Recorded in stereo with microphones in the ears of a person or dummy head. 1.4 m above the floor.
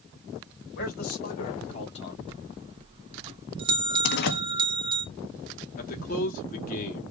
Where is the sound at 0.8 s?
50° left (ahead or behind), 2.5 m; by 2.2 s 25° left (ahead or behind), 2.5 m.